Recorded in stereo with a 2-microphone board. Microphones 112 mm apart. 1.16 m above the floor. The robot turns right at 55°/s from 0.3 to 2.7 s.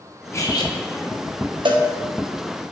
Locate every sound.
0.3 s cutlery clinking: 25° left (ahead or behind), 0.8 m; by 0.7 s 45° left (ahead or behind), 0.8 m
1.6 s a cowbell: 50° right (ahead or behind), 0.7 m; by 1.9 s 35° right (ahead or behind), 0.7 m